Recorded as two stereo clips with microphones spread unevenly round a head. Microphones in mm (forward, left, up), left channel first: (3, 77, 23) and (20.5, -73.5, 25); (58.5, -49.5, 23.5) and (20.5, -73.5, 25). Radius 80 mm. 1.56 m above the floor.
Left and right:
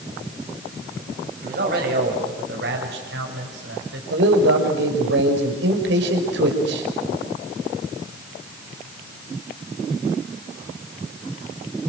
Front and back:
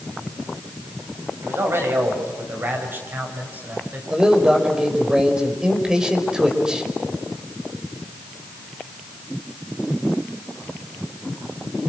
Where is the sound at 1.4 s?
120° right, 7.5 m; by 4.0 s 95° right, 6.5 m.